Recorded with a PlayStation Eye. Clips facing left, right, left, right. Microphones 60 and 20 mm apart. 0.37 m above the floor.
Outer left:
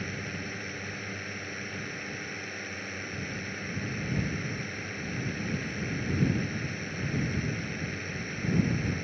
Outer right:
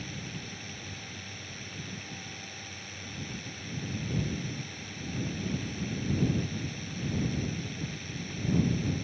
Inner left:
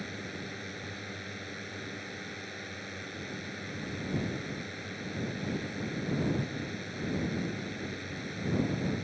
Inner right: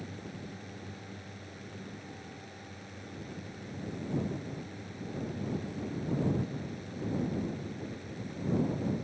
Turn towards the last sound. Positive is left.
turn(degrees=40)  # may be behind; listen again after turning